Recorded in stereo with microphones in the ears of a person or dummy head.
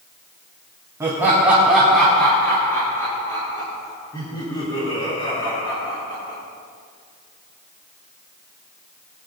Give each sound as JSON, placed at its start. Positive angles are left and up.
{"t": 1.0, "sound": "laughter", "side_deg": -15, "distance_m": 2.0}